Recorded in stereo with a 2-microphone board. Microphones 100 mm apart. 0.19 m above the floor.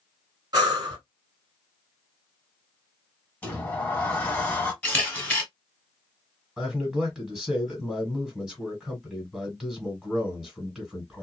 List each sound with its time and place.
0.5 s breathing: 40° right (ahead or behind), 1.3 m
3.4 s a sliding door: 15° left (ahead or behind), 0.9 m
4.8 s a camera shutter: 15° left (ahead or behind), 1.3 m
6.6 s a man speaking: 5° right (ahead or behind), 1.6 m